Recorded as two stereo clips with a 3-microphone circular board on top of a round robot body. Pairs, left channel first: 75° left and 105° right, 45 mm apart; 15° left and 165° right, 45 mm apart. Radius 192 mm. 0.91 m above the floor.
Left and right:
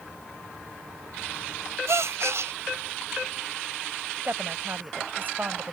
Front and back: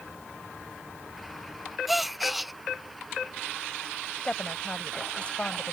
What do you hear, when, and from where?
1.9 s a gasp: 75° right
4.2 s a woman speaking: 55° right